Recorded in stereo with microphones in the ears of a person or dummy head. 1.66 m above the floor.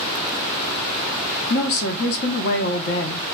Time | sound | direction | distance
1.5 | a woman speaking | 55° left (ahead or behind) | 0.7 m